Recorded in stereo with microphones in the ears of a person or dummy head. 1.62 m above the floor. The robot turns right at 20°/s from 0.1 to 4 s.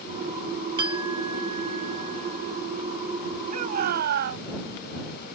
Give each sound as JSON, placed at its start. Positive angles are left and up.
{"t": 0.8, "sound": "a clink", "azimuth_deg": -155}
{"t": 3.5, "sound": "a shout", "side_deg": -50}